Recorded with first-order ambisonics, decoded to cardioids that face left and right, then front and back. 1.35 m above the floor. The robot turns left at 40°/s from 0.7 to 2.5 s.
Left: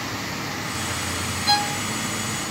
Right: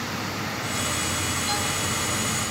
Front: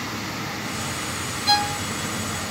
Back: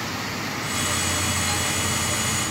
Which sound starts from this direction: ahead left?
A violin, at 1.5 s.